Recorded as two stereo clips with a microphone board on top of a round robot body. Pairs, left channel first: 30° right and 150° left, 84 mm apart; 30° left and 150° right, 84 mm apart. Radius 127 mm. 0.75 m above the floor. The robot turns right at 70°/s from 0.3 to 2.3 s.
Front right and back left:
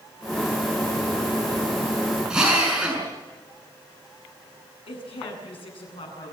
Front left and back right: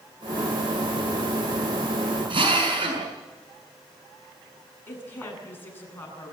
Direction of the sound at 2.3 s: 130° right.